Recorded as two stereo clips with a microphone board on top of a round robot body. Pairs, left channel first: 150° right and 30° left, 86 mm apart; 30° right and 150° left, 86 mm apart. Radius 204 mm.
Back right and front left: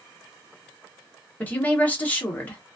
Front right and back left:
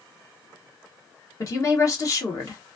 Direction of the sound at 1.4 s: 80° right.